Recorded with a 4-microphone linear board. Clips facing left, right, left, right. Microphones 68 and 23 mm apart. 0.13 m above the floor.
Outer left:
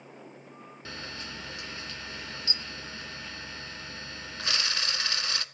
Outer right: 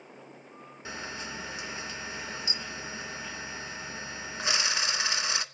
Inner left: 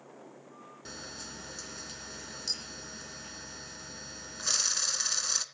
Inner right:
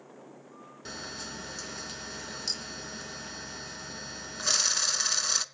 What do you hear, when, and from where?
0.8 s a camera shutter: 15° right (ahead or behind), 0.6 m